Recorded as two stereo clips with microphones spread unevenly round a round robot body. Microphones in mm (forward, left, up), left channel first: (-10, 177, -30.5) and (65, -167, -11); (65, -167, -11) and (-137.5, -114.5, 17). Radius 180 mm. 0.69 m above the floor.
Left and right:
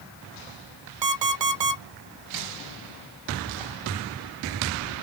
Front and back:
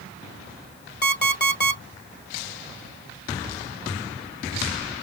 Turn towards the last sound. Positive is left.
turn(degrees=-55)